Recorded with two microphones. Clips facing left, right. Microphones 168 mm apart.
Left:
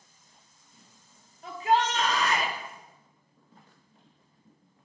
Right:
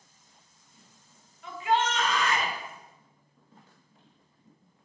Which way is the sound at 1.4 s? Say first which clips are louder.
Left 2 dB; 40° left (ahead or behind).